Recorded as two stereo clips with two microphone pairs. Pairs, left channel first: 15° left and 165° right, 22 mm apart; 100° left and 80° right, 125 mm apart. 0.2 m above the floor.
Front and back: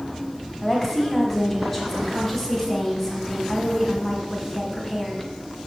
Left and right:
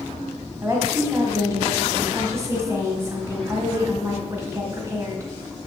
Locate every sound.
0.6 s a woman speaking: 50° right, 1.5 m